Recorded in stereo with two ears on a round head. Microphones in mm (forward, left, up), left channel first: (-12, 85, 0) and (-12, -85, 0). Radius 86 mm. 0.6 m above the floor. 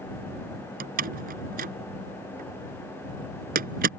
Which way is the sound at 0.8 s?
50° right (ahead or behind).